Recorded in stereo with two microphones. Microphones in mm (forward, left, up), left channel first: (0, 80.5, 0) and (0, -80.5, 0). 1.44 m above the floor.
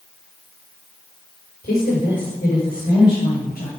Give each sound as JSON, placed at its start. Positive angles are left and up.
{"t": 1.6, "sound": "a woman speaking", "side_deg": 80, "distance_m": 3.5}